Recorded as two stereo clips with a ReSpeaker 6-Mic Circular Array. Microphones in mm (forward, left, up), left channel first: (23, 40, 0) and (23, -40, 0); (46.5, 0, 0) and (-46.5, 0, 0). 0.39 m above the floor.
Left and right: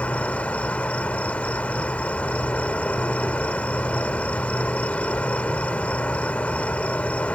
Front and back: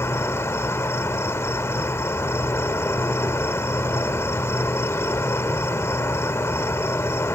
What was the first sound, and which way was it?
An insect, 30° left.